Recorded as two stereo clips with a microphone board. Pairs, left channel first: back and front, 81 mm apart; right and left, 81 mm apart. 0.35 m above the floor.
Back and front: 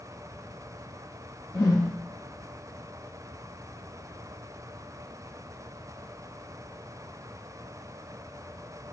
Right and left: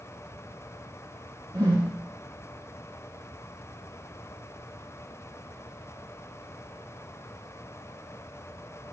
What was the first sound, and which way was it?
A whoosh, 130° left.